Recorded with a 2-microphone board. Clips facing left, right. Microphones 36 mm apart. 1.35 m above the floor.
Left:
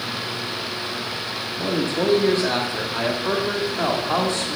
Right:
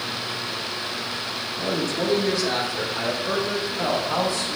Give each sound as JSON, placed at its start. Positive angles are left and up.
{"t": 1.6, "sound": "a man speaking", "side_deg": 30, "distance_m": 2.0}